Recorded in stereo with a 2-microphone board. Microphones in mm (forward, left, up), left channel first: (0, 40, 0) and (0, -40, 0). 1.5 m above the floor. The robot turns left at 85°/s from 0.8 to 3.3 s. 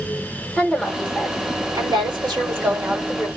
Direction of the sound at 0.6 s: 5° left.